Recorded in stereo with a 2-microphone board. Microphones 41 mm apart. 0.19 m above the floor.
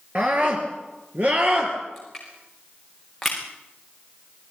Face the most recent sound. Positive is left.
turn(degrees=0)  # may be behind; listen again after turning